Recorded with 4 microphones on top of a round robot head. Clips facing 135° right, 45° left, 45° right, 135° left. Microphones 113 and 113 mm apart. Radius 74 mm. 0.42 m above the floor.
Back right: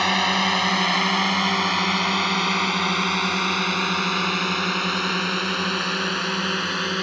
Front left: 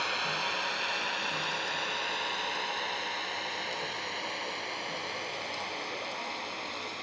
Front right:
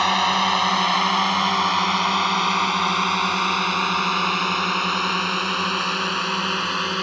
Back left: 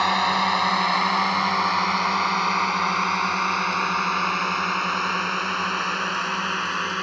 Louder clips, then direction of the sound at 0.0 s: Back right 12 dB, front right 1 dB; 130° right.